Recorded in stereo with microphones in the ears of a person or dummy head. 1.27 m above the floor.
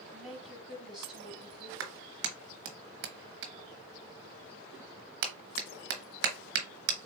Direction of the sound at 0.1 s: Centre (ahead or behind).